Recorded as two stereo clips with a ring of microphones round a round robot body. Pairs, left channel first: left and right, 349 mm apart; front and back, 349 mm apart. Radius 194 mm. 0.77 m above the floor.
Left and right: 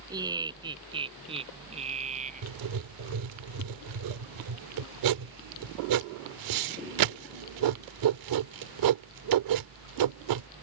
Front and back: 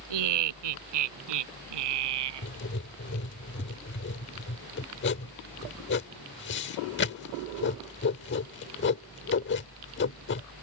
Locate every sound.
0.1 s laughter: 170° right; by 2.5 s 160° right
2.4 s writing: 65° right